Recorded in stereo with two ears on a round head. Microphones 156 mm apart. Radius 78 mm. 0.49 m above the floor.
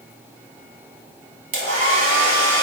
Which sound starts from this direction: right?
A hair dryer, at 1.5 s.